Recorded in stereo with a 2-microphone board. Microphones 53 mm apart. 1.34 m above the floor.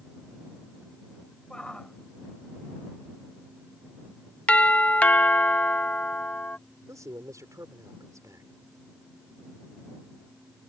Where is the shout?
15° left (ahead or behind).